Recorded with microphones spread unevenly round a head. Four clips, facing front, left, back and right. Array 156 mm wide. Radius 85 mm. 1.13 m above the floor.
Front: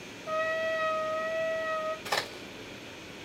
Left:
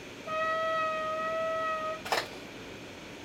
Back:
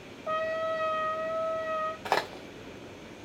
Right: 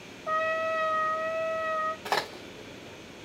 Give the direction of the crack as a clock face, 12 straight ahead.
5 o'clock.